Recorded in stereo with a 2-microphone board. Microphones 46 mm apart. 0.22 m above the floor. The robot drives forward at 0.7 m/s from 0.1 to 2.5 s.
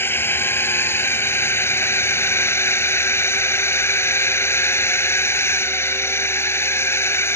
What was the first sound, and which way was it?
A drone, 55° left (ahead or behind).